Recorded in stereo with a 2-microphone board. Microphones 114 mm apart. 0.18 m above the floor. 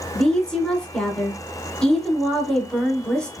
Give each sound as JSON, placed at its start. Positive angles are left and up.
{"t": 0.1, "sound": "a woman speaking", "side_deg": 10, "distance_m": 1.1}